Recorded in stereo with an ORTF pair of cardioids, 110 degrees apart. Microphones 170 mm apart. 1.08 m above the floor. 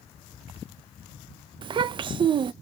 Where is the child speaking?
30° right, 0.5 m.